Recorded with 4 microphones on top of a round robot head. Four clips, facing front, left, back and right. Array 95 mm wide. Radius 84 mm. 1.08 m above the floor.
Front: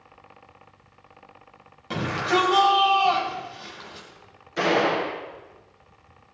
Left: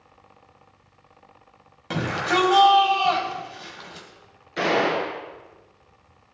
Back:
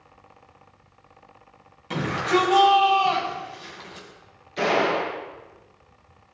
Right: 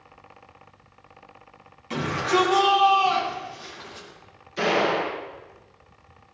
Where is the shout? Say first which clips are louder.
Even, back 1 dB; 75° left, 6.5 m.